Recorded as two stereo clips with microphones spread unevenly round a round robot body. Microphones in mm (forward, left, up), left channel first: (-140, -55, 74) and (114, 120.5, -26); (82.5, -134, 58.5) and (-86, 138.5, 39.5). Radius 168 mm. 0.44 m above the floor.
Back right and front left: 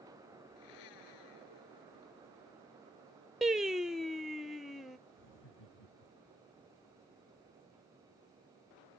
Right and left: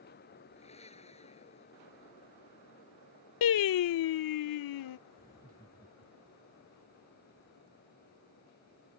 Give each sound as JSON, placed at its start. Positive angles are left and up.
{"t": 0.6, "sound": "a blender", "azimuth_deg": -130}
{"t": 3.4, "sound": "singing", "azimuth_deg": -45}
{"t": 5.2, "sound": "laughter", "azimuth_deg": -140}